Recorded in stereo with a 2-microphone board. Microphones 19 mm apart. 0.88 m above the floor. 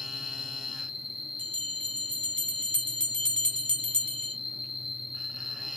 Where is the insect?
30° right (ahead or behind), 1.6 m.